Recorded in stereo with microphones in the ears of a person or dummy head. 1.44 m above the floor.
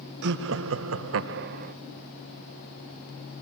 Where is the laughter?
70° right (ahead or behind), 1.1 m; by 1.8 s 45° right (ahead or behind), 1.0 m.